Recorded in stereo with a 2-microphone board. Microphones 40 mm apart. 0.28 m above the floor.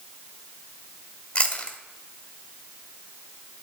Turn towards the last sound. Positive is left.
turn(degrees=25)  # may be behind; listen again after turning